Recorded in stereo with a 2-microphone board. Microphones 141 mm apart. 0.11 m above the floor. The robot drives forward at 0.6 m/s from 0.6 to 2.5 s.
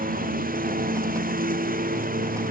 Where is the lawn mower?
90° right; by 2.5 s 85° right.